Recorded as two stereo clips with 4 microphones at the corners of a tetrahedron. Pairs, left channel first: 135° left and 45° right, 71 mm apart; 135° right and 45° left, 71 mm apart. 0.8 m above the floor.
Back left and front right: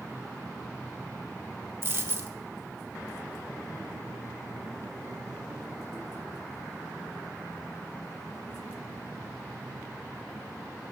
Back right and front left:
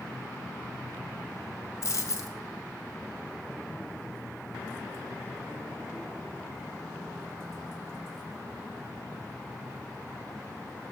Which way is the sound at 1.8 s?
95° right.